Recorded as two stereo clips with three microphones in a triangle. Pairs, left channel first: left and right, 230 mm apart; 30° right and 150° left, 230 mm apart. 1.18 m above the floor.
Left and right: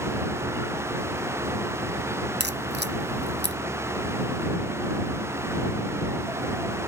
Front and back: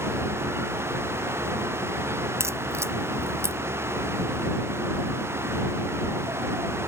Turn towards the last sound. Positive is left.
turn(degrees=-130)